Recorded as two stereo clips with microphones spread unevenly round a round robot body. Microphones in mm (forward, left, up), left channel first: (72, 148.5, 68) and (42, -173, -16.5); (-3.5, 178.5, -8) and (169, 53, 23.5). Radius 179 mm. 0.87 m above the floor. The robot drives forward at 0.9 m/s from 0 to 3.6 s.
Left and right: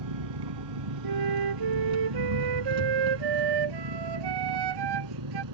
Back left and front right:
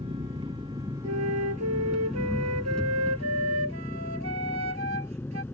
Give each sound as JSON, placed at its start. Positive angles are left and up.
{"t": 0.0, "sound": "an engine running", "azimuth_deg": -110}
{"t": 1.0, "sound": "a flute", "azimuth_deg": -70}